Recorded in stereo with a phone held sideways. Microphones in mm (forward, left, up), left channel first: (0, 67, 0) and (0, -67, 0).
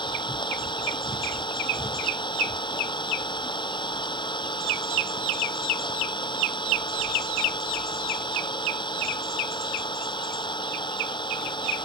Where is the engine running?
35° left (ahead or behind).